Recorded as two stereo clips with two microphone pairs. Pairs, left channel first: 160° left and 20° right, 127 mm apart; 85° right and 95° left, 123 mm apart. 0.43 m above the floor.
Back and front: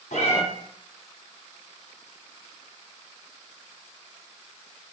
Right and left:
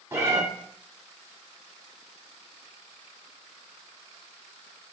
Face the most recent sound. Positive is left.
turn(degrees=160)